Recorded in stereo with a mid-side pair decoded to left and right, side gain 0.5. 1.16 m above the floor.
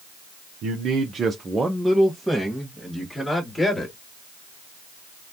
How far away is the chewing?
No chewing in this recording.